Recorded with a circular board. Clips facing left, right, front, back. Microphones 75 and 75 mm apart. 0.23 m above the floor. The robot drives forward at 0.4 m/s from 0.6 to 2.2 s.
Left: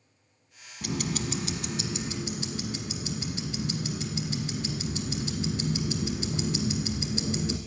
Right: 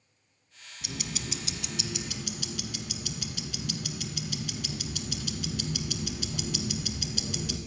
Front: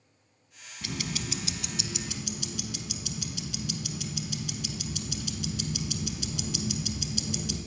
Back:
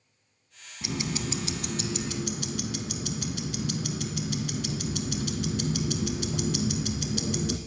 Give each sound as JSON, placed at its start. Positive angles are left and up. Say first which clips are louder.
{"t": 0.8, "sound": "ticking", "louder": "left 7 dB, back 4 dB", "azimuth_deg": 110, "distance_m": 0.6}